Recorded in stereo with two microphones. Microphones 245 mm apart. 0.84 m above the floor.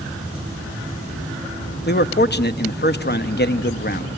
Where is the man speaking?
45° left (ahead or behind), 0.8 m.